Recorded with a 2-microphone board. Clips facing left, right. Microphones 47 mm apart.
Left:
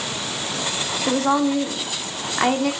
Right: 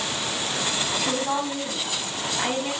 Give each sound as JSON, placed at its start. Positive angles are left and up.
{"t": 1.1, "sound": "a woman speaking", "side_deg": 90, "distance_m": 2.0}